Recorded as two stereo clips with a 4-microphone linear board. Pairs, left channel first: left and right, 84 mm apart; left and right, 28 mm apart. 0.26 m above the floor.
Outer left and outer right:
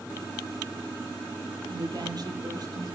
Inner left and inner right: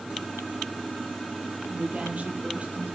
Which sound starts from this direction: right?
A woman speaking, at 1.7 s.